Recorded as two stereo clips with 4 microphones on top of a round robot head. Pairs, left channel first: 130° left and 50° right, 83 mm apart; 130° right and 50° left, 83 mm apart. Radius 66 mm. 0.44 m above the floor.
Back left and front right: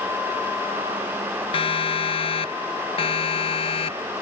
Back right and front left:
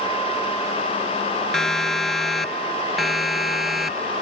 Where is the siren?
145° left; by 4.2 s 135° left.